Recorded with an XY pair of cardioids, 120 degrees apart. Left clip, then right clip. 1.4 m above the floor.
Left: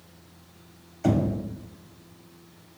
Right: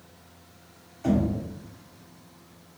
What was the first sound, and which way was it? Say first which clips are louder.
Knocking: left 1 dB; 40° left.